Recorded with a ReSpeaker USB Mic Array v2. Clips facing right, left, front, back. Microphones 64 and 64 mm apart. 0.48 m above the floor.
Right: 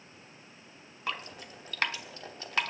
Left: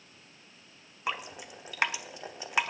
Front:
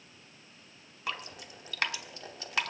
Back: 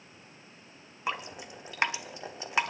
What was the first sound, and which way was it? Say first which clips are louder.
Dripping: left 2 dB, back 4 dB; 145° left.